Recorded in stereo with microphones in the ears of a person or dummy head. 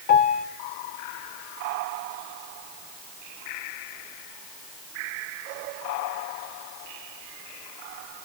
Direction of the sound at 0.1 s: 45° left (ahead or behind).